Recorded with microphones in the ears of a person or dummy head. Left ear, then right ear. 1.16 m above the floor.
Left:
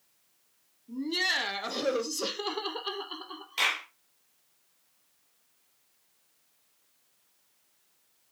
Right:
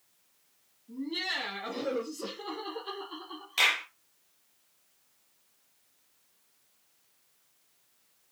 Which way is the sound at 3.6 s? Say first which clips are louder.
Right 2 dB; 10° right (ahead or behind).